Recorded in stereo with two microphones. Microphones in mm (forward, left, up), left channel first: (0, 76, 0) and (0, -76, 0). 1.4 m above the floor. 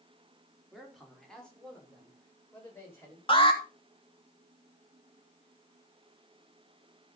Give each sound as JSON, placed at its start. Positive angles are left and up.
{"t": 0.7, "sound": "a man speaking", "side_deg": 0, "distance_m": 4.0}
{"t": 3.3, "sound": "an alarm", "side_deg": 35, "distance_m": 3.0}